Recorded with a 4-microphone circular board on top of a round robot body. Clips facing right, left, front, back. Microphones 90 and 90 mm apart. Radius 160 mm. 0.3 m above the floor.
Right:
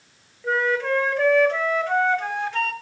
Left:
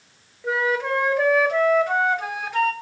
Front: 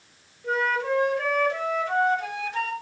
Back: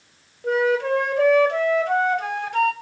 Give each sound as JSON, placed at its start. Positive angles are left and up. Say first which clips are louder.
{"t": 0.4, "sound": "a flute", "louder": "right 1 dB, back 5 dB", "azimuth_deg": 170, "distance_m": 2.0}